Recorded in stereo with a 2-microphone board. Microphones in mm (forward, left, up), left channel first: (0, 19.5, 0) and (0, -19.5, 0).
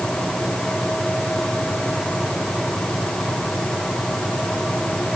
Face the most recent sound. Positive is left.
No sound to turn to.